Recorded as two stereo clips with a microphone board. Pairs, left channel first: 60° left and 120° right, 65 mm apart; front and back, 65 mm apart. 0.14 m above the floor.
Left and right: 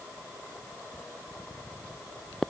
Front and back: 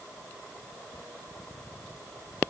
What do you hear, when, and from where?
Only background noise.